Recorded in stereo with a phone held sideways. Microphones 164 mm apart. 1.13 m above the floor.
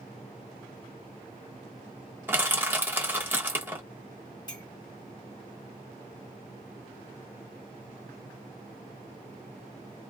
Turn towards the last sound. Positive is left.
turn(degrees=25)  # may be behind; listen again after turning